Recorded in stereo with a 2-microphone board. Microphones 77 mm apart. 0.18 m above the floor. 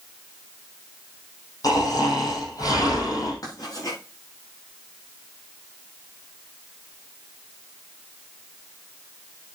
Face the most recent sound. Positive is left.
turn(degrees=55)  # may be behind; listen again after turning